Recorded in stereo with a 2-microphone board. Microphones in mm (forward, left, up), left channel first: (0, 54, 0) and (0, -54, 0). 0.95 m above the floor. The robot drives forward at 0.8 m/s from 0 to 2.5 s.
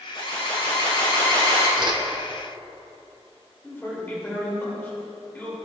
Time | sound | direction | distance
0.1 | an alarm | 55° left (ahead or behind) | 3.5 m
1.8 | a whoosh | 45° right (ahead or behind) | 0.8 m
3.6 | a man speaking | 20° left (ahead or behind) | 3.5 m